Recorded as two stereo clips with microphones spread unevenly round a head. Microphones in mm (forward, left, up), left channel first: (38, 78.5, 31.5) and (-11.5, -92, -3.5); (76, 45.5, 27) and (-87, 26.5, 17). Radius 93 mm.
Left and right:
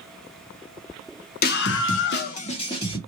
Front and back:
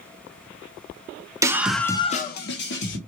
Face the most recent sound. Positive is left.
turn(degrees=-5)